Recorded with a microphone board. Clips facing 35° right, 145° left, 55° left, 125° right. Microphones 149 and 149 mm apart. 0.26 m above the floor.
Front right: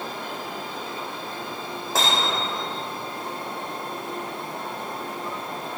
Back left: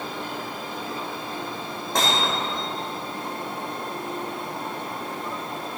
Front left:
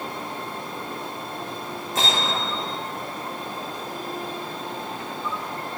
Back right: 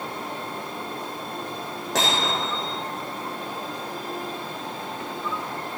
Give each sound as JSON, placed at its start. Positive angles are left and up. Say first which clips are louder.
{"t": 1.9, "sound": "hammering", "louder": "back left 1 dB, back right 1 dB", "azimuth_deg": -120, "distance_m": 5.5}